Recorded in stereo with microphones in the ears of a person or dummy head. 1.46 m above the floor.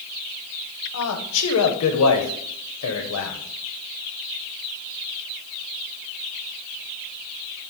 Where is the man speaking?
80° left, 0.8 m.